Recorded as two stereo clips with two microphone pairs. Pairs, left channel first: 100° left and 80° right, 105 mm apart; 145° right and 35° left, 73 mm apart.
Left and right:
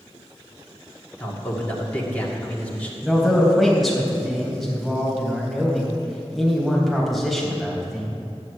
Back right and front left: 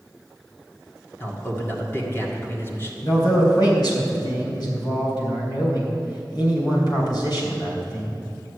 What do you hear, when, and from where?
1.2 s a man speaking: 170° left, 1.8 m
3.0 s a man speaking: 170° right, 3.5 m